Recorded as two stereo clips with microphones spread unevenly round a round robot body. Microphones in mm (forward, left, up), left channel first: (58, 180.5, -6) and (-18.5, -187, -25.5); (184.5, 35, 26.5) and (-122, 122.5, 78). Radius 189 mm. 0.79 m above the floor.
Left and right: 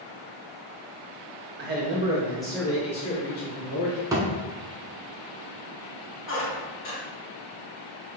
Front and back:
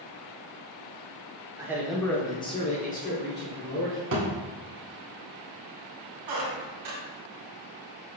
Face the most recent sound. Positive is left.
turn(degrees=140)